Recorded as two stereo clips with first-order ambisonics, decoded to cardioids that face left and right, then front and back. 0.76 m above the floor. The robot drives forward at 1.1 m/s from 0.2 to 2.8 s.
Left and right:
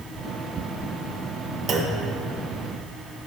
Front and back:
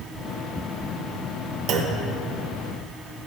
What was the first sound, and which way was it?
A clunk, 150° right.